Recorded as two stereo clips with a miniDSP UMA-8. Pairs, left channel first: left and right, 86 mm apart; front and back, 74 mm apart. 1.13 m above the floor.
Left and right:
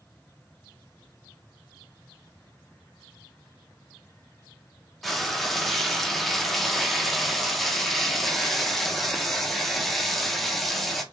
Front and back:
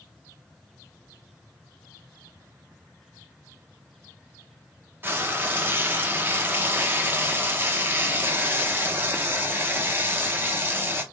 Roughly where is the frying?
Behind.